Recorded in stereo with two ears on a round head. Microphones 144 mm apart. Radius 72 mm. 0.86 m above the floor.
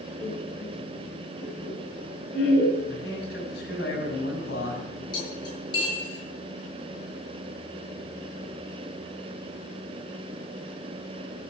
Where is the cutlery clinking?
30° left (ahead or behind), 8 m.